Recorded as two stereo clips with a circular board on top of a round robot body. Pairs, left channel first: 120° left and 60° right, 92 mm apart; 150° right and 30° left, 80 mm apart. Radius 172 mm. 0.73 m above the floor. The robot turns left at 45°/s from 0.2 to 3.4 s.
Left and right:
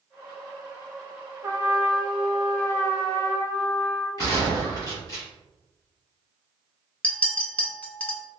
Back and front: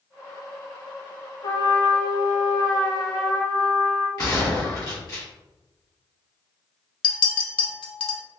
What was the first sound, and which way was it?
A trumpet, 120° right.